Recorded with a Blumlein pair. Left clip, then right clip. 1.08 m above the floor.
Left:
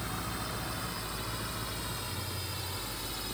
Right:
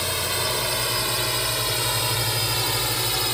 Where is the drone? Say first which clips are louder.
Right 13 dB; 35° right.